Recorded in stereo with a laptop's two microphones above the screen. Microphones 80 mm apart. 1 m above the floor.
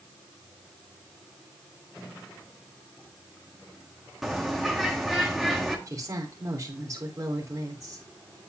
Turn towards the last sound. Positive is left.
turn(degrees=-45)  # may be behind; listen again after turning